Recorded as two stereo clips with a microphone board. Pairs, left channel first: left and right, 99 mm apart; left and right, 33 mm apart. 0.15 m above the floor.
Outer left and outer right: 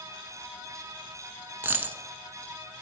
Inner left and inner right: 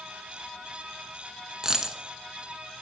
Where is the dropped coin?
20° right (ahead or behind), 0.5 m.